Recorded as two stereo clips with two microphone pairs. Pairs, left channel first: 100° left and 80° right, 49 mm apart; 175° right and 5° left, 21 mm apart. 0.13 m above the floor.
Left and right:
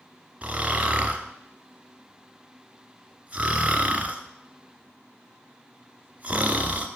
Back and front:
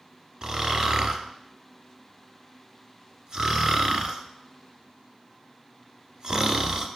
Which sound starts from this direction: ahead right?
Snoring, at 0.4 s.